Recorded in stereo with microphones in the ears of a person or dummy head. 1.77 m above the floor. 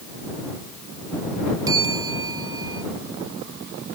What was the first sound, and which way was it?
A bell, 15° right (ahead or behind).